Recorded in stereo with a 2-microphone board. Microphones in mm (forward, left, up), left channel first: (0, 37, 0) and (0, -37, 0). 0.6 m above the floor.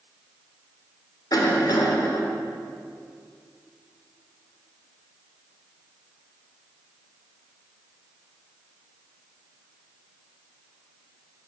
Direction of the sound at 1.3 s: 60° left (ahead or behind).